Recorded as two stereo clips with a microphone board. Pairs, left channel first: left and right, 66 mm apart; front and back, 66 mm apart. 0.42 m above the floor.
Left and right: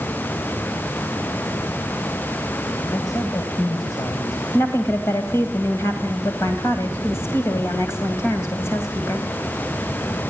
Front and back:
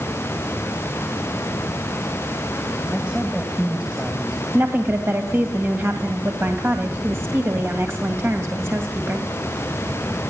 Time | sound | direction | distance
2.9 | a man speaking | 105° left | 3 m
4.5 | a woman speaking | 130° left | 2.5 m